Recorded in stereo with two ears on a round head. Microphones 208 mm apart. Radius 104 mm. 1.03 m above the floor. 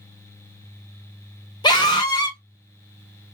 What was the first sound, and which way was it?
A scream, 20° left (ahead or behind).